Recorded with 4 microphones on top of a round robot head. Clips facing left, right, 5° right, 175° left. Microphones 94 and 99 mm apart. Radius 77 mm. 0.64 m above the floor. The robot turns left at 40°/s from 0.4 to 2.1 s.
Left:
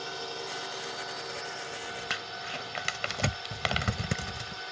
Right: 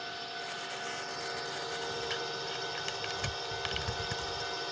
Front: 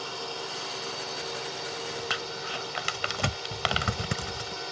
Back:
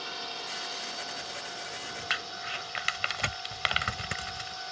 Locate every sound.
0.0 s a drone: 35° left; by 4.7 s 30° right
2.1 s crumpling: 50° left